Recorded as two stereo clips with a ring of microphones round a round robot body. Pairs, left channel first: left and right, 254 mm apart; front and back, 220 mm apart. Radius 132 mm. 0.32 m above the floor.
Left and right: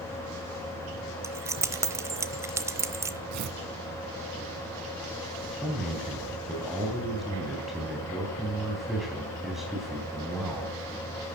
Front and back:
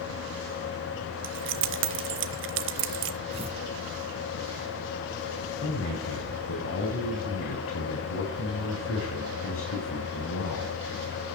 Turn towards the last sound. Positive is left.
turn(degrees=0)